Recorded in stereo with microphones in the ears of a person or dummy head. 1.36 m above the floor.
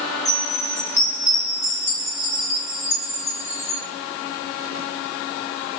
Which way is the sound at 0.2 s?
15° left (ahead or behind).